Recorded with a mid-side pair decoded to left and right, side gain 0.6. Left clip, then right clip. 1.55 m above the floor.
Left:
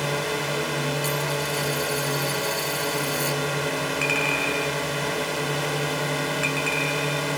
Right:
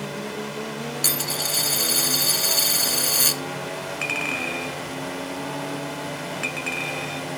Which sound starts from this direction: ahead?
A clink, at 4.0 s.